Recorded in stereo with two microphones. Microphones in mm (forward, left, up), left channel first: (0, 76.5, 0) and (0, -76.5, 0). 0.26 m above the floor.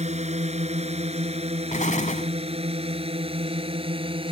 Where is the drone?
45° right (ahead or behind); by 4.3 s 35° right (ahead or behind).